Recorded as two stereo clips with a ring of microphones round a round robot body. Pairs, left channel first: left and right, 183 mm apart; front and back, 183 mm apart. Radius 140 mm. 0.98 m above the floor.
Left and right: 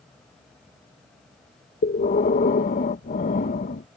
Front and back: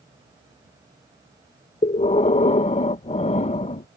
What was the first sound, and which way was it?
Breathing, 50° left.